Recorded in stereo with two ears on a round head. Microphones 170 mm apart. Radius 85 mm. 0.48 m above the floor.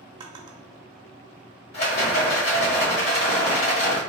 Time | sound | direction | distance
0.2 | a drawer | 25° right (ahead or behind) | 0.8 m
1.7 | a rattle | 55° left (ahead or behind) | 1.3 m